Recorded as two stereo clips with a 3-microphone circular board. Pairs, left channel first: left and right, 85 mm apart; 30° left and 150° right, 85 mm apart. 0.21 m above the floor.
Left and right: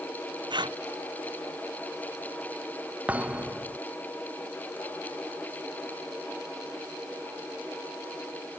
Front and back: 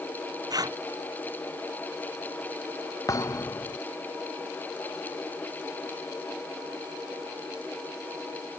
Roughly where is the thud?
Ahead.